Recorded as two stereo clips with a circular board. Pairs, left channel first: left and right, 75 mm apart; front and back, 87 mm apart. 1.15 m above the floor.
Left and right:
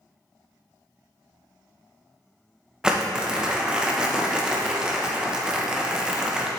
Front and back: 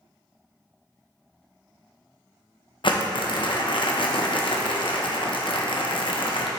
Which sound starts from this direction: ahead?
Crumpling, at 2.8 s.